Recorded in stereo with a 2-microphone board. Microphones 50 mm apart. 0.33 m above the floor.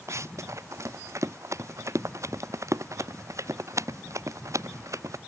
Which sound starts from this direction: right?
Running footsteps, at 0.1 s.